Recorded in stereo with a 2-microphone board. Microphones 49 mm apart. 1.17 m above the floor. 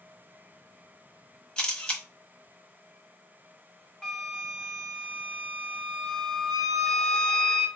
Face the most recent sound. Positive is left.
turn(degrees=10)  # may be behind; listen again after turning